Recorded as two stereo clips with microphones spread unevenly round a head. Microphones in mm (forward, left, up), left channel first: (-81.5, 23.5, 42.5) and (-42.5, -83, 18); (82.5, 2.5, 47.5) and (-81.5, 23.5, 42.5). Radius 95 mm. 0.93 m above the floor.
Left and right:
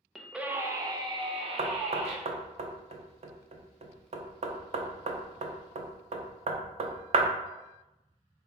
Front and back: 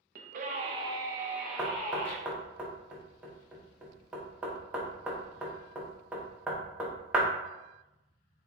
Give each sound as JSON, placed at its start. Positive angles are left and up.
{"t": 0.1, "sound": "a scream", "azimuth_deg": -155, "distance_m": 0.7}
{"t": 1.6, "sound": "knocking", "azimuth_deg": -105, "distance_m": 0.6}